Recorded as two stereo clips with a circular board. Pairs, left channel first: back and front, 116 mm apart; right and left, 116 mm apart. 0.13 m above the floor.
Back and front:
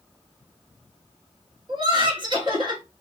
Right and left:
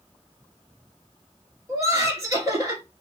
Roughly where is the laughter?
Ahead left.